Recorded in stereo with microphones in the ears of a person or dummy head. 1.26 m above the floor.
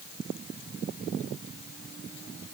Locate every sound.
Only background noise.